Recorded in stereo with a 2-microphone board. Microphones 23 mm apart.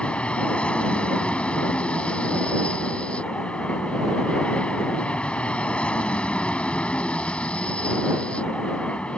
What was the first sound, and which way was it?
An aircraft, 60° left (ahead or behind).